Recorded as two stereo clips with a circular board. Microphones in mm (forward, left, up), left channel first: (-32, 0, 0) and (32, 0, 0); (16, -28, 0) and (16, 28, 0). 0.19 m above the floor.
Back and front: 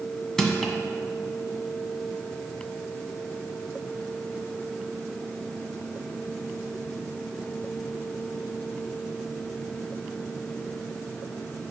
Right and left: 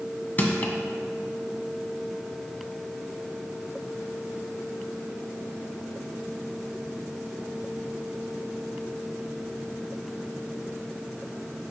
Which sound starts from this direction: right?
Crushing, at 0.4 s.